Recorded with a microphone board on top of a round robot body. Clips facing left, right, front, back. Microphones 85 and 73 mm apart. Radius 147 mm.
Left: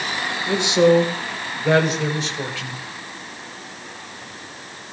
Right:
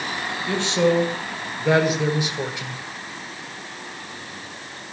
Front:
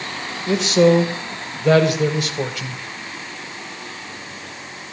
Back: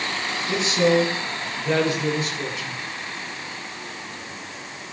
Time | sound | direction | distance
0.5 | a man speaking | 20° left | 4.5 m